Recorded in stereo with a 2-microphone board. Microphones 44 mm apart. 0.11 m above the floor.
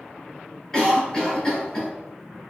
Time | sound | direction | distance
0.7 | a cough | 20° left (ahead or behind) | 1.8 m